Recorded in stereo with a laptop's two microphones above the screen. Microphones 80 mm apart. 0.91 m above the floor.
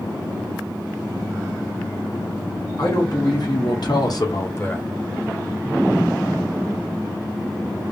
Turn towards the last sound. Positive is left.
turn(degrees=20)  # may be behind; listen again after turning